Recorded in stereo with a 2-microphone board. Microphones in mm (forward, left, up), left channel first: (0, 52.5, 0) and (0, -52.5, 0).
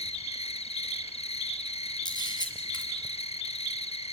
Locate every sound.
0.0 s an insect: 65° left (ahead or behind), 0.8 m
2.0 s a camera shutter: 45° left (ahead or behind), 3.5 m